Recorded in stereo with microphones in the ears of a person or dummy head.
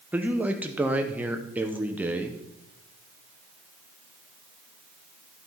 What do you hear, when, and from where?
0.1 s a man speaking: 10° right (ahead or behind), 0.7 m